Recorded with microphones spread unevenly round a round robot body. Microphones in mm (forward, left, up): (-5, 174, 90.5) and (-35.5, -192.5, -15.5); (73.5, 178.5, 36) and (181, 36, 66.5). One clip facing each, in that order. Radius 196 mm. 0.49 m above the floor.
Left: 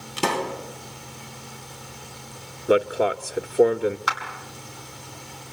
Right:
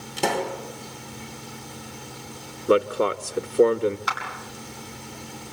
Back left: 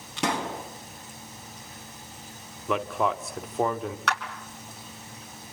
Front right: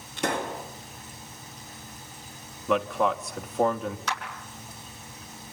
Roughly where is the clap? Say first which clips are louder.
Even, back left 3 dB; left.